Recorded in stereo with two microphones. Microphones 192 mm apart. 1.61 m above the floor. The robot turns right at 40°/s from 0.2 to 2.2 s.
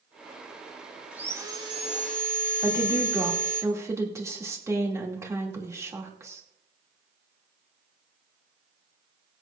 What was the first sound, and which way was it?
Sawing, 175° right.